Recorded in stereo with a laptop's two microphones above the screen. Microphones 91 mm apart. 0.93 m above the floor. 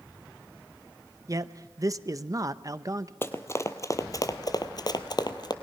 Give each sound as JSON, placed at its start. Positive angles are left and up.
{"t": 1.3, "sound": "a man speaking", "side_deg": -40, "distance_m": 0.7}
{"t": 3.2, "sound": "running footsteps", "side_deg": 25, "distance_m": 1.5}